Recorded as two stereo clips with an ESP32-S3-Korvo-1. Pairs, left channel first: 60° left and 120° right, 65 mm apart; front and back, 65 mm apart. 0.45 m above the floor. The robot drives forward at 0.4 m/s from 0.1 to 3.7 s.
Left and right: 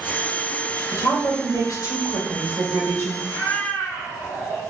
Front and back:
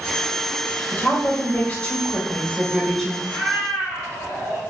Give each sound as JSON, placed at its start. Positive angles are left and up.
{"t": 0.9, "sound": "a woman speaking", "azimuth_deg": 55, "distance_m": 1.9}
{"t": 3.2, "sound": "a cat meowing", "azimuth_deg": 125, "distance_m": 1.7}